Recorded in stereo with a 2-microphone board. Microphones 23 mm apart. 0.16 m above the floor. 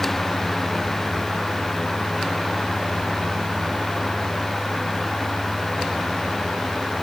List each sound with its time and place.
Only background noise.